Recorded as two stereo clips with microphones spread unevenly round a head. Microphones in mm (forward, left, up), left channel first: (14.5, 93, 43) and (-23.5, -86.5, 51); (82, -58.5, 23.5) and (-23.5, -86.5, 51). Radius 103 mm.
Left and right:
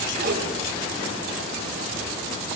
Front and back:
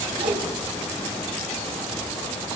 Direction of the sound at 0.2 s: 145° right.